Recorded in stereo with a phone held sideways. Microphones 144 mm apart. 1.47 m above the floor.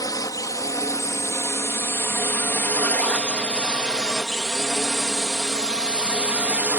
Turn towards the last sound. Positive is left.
turn(degrees=-10)  # may be behind; listen again after turning